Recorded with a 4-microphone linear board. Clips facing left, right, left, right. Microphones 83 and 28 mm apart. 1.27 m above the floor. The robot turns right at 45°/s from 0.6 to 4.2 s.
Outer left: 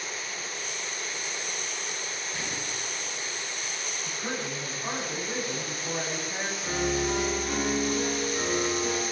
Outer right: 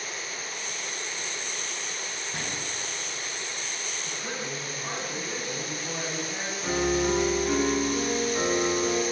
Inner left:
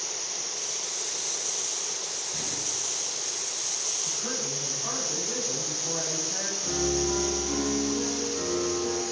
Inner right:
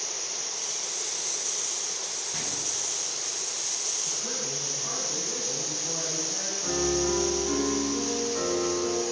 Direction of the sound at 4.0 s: 30° left (ahead or behind).